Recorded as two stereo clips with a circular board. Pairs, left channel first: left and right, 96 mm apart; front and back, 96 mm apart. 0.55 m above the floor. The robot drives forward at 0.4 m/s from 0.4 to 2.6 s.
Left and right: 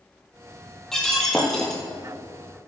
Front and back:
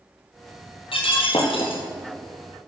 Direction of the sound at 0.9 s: 5° left.